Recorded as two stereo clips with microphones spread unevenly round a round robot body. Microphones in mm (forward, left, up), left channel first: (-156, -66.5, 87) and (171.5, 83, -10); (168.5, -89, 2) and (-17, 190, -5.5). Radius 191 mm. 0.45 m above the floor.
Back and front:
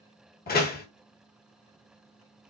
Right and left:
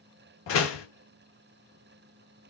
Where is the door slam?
85° right, 0.9 m.